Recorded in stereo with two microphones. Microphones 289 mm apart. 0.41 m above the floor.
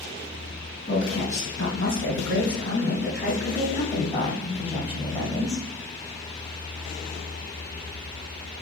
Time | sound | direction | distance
0.9 | a woman speaking | 50° left (ahead or behind) | 4 m